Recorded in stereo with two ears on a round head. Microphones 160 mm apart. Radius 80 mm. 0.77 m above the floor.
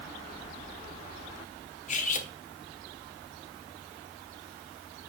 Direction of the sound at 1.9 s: 45° left (ahead or behind).